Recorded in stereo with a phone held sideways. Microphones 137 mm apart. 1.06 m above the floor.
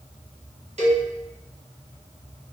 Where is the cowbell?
50° right (ahead or behind), 0.8 m.